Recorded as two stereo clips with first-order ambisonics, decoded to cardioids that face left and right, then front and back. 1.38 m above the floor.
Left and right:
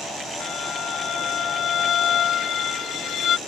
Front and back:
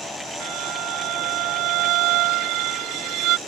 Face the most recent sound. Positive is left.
turn(degrees=145)